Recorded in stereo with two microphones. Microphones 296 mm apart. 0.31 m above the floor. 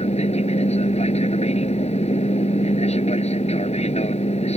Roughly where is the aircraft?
Left.